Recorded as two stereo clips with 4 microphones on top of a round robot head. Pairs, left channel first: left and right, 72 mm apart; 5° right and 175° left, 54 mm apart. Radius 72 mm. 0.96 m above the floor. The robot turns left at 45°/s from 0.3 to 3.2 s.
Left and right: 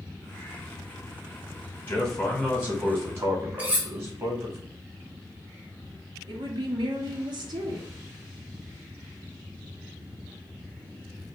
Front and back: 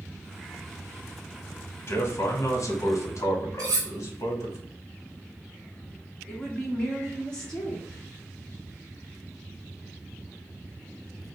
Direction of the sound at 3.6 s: 160° right.